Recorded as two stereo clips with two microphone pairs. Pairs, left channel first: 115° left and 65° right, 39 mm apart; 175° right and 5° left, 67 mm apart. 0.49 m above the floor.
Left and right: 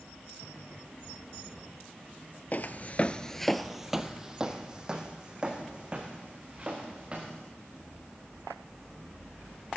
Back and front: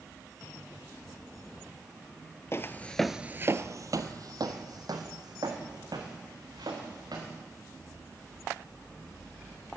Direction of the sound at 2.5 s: 150° left.